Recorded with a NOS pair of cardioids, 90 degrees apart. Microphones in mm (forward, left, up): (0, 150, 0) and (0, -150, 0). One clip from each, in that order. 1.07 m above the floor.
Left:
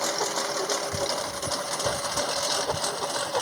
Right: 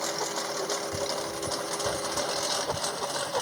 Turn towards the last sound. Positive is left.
turn(degrees=20)